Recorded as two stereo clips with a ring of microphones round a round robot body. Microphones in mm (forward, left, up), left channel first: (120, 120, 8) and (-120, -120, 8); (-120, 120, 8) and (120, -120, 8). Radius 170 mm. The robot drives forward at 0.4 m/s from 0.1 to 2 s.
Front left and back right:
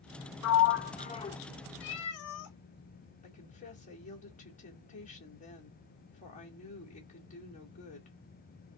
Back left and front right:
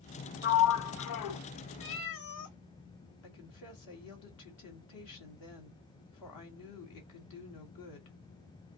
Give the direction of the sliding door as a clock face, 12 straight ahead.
9 o'clock.